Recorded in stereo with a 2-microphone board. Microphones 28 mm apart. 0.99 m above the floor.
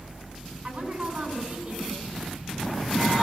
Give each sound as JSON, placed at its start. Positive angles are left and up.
{"t": 0.6, "sound": "a woman speaking", "side_deg": -25, "distance_m": 8.0}